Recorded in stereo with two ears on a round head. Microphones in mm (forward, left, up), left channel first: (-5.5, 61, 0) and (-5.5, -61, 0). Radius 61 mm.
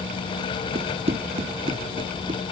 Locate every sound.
0.8 s running footsteps: 50° right (ahead or behind); by 2.5 s 35° right (ahead or behind)